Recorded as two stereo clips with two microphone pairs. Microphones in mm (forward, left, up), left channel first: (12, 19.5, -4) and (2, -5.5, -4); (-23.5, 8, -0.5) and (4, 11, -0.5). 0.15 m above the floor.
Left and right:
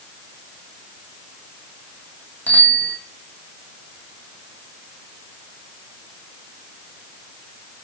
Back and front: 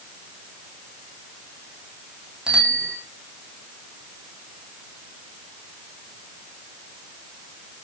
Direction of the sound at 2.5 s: 60° left.